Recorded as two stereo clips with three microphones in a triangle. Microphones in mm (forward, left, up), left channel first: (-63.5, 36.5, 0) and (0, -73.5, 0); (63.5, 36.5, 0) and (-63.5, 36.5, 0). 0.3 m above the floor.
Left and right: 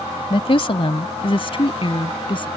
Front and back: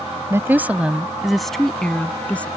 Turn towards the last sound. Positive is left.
turn(degrees=80)